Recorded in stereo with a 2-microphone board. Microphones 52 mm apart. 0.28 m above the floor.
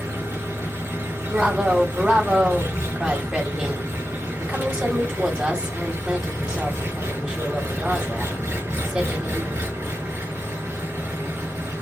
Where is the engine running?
70° right (ahead or behind), 2 m.